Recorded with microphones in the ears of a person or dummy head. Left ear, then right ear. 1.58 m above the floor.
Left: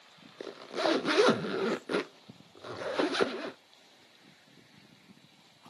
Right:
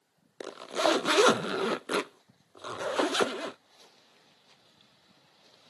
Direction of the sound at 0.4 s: 45° right (ahead or behind).